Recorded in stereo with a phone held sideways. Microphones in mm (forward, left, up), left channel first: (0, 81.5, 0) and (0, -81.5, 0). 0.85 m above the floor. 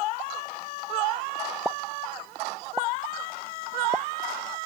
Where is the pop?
10° right (ahead or behind).